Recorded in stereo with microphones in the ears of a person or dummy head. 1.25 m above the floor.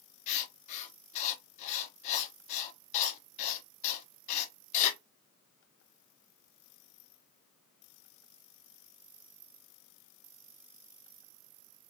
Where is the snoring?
No snoring in this recording.